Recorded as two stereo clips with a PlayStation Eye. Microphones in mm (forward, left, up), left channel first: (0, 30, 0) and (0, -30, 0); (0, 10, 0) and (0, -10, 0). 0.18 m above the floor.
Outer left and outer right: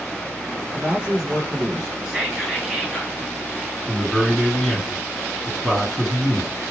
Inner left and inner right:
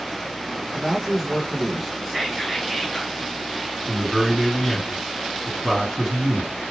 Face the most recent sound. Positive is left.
turn(degrees=5)  # may be behind; listen again after turning